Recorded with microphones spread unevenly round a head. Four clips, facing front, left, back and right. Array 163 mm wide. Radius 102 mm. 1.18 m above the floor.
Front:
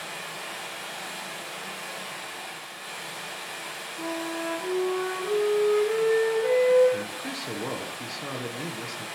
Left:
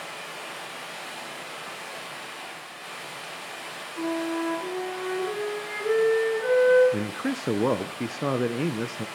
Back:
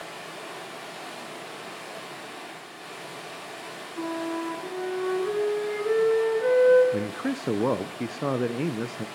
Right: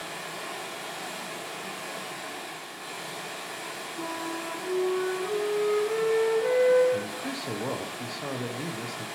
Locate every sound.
0.0 s running water: 140° right, 4 m
4.0 s a flute: straight behind, 7 m
6.9 s a man speaking: 110° left, 0.5 m